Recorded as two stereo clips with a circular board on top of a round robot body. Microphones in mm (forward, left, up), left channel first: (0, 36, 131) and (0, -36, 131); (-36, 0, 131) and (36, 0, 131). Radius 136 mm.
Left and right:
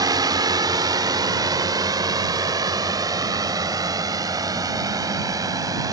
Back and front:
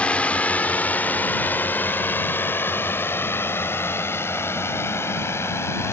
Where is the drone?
110° right; by 5.9 s 125° right.